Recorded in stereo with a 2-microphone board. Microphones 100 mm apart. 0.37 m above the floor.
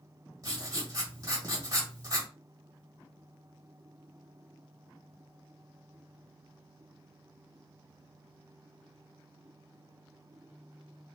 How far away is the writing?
About 1.3 m.